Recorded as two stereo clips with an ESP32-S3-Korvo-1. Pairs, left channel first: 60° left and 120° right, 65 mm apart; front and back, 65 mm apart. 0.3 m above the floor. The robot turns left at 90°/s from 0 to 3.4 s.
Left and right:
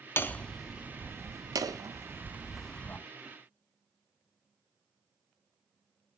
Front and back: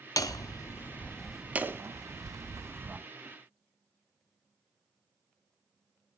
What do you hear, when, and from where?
0.2 s hammering: 10° left, 0.5 m; by 3.0 s 115° left, 0.5 m